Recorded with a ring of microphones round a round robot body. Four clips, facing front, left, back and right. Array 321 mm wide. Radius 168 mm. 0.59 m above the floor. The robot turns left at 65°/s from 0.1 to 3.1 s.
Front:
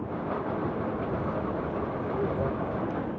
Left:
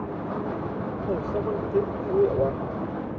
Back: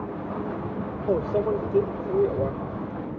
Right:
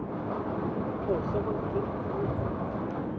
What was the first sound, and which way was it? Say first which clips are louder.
A microwave: left 3 dB, back 7 dB; 160° right.